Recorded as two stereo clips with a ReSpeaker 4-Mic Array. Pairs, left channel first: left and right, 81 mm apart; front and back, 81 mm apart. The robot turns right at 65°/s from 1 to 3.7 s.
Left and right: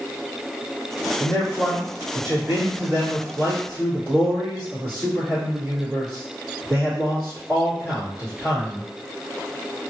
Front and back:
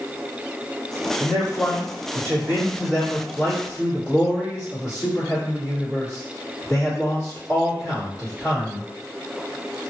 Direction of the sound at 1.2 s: 135° left.